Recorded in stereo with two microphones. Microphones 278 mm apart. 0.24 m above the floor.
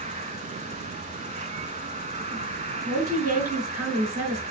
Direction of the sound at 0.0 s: 25° right (ahead or behind).